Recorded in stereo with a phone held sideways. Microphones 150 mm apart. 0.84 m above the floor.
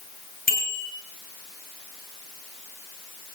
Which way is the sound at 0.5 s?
70° left (ahead or behind).